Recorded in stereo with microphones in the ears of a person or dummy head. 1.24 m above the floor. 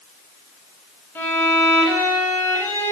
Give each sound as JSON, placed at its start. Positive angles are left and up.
{"t": 1.1, "sound": "a violin", "side_deg": 10, "distance_m": 1.0}